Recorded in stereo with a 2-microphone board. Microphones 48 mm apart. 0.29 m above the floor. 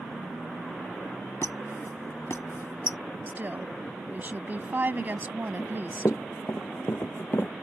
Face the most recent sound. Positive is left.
turn(degrees=55)  # may be behind; listen again after turning